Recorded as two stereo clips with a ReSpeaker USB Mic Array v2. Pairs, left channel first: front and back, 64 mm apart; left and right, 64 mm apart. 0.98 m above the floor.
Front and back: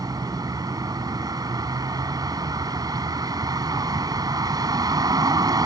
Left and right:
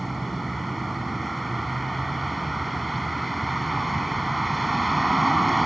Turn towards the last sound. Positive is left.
turn(degrees=180)